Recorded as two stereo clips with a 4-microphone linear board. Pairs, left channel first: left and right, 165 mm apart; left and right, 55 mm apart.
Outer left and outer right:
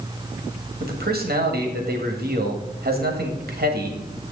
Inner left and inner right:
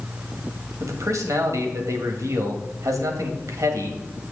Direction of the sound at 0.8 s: 70° right (ahead or behind).